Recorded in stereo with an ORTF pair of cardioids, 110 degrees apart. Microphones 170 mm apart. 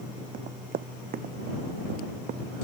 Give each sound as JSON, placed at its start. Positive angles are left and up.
{"t": 0.3, "sound": "running footsteps", "azimuth_deg": -60}